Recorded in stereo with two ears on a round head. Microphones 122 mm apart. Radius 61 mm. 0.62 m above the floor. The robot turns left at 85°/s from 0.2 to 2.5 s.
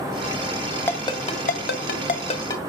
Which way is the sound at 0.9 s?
15° left (ahead or behind).